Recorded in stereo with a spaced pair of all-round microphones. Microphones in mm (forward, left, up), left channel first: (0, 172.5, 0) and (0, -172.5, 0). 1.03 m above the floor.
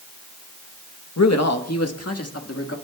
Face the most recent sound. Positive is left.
turn(degrees=40)  # may be behind; listen again after turning